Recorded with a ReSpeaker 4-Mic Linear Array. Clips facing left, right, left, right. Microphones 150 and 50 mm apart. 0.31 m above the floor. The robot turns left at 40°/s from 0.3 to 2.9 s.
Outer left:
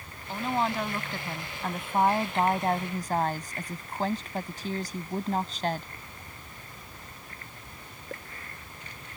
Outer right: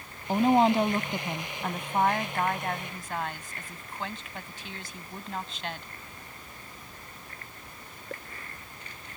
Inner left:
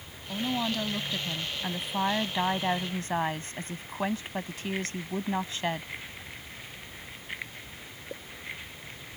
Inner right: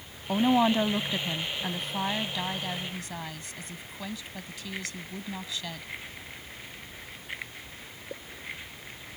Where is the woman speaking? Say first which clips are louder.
Outer right 8 dB, inner right 8 dB; 125° right; by 5.9 s 130° left.